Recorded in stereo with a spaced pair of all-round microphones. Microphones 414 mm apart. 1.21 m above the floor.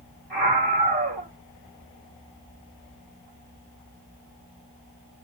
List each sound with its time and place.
0.3 s a scream: 80° left, 2.5 m